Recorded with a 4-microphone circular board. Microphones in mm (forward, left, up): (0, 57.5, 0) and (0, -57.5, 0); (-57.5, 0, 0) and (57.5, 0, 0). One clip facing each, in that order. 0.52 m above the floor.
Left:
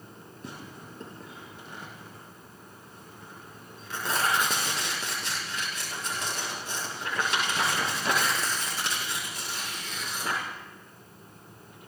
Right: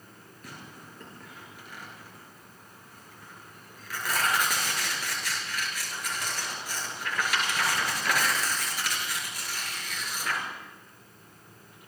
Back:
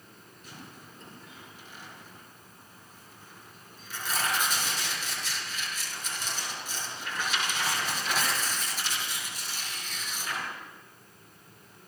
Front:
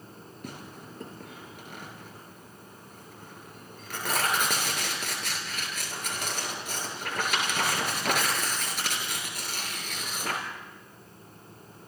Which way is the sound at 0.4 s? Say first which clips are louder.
Left 3 dB, front 6 dB; 25° left.